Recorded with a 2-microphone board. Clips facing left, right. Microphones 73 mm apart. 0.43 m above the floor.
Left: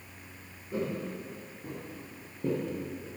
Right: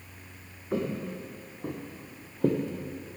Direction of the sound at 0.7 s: 75° right (ahead or behind).